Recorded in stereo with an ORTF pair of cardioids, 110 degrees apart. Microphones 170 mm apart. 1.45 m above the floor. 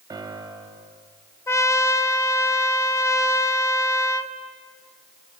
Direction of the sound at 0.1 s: 25° right.